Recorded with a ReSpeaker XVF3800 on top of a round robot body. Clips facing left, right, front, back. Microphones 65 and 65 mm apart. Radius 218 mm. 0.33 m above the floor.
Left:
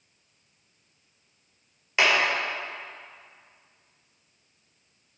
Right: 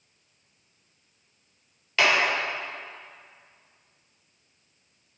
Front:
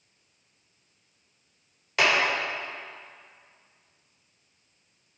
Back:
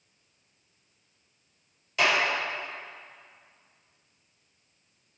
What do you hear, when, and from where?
2.0 s a clap: 20° left, 2 m